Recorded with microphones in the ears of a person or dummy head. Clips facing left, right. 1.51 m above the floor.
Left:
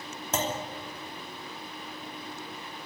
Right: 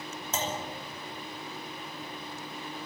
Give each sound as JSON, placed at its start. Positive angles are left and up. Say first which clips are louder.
{"t": 0.3, "sound": "a clunk", "louder": "left 3 dB", "side_deg": 45, "distance_m": 3.0}